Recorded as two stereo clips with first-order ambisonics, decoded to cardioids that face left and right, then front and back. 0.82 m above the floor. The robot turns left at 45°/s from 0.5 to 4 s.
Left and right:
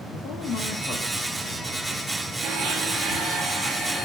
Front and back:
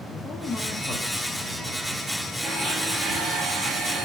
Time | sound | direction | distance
0.1 | a man speaking | 50° left | 0.8 m
2.4 | a blender | 95° right | 1.1 m